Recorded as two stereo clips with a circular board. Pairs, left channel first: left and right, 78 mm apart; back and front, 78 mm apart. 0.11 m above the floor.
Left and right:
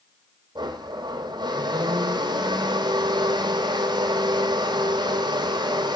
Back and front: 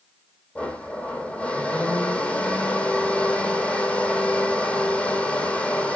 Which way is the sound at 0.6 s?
105° right.